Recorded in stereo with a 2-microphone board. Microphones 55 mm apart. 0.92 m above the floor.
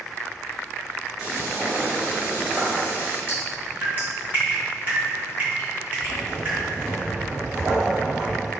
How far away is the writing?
About 1.1 m.